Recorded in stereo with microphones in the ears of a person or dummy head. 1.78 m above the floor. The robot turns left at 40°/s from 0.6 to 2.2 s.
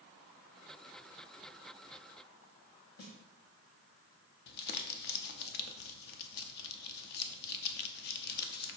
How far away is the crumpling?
About 0.7 m.